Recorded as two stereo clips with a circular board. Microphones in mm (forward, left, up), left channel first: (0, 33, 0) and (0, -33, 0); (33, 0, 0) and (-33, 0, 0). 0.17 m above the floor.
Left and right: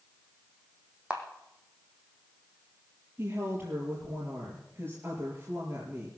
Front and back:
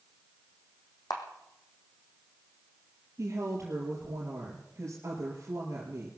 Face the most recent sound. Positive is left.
turn(degrees=-140)